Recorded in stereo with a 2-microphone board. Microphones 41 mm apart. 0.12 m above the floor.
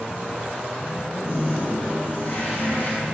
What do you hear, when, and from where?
1.2 s a toilet flushing: 65° left (ahead or behind), 5.5 m